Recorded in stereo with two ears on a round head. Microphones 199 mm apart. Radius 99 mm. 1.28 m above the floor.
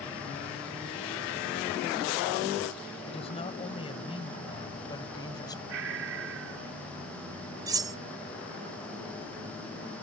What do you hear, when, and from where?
3.0 s a woman speaking: 30° left (ahead or behind); by 5.6 s 20° left (ahead or behind)
5.7 s breathing: 65° right (ahead or behind)
7.7 s cutlery clinking: 15° right (ahead or behind)